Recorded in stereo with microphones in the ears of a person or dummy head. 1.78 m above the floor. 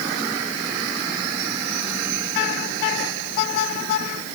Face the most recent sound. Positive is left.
No sound to turn to.